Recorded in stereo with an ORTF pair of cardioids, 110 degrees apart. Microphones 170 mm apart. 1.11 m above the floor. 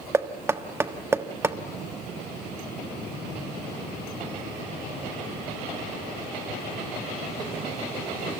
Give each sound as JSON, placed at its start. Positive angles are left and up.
{"t": 0.1, "sound": "knocking", "azimuth_deg": -15, "distance_m": 1.3}